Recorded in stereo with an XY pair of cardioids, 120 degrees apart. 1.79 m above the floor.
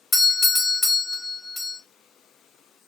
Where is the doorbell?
20° left, 1.1 m.